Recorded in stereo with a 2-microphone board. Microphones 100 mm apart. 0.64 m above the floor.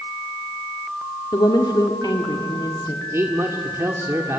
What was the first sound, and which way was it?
A woman speaking, 45° left (ahead or behind).